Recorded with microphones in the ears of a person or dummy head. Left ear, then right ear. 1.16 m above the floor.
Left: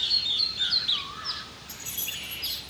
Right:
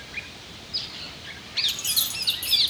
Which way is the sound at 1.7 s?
90° right.